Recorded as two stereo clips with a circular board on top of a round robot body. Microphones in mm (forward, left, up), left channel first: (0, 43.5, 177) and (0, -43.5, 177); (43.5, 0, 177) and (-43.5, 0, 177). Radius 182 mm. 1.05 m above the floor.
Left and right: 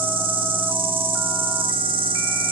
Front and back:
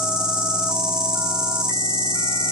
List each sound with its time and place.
0.0 s an insect: 95° right, 8 m